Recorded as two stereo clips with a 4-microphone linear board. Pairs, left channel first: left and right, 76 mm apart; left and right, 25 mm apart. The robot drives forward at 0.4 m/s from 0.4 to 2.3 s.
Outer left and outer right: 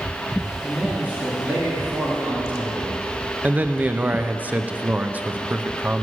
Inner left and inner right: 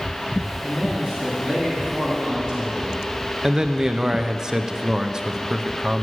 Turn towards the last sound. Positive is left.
turn(degrees=-20)  # may be behind; listen again after turning